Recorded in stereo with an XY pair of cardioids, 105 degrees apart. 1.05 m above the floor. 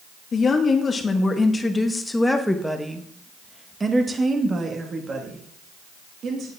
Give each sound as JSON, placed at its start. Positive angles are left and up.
{"t": 0.3, "sound": "a woman speaking", "azimuth_deg": 45, "distance_m": 1.9}